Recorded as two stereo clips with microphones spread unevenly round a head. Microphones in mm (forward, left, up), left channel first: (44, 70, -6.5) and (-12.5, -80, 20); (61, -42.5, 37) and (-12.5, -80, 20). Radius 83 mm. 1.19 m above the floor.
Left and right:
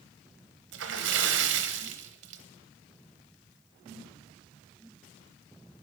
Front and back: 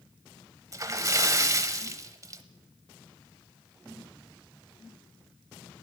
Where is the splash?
115° right, 1.0 m.